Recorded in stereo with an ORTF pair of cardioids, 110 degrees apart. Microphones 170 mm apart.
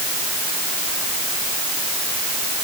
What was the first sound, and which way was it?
Only background noise.